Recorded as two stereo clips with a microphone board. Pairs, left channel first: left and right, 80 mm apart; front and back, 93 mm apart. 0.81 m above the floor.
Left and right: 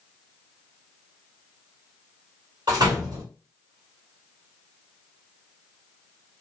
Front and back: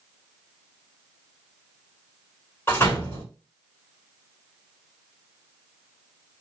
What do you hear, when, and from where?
2.7 s a door slam: 65° right, 2.5 m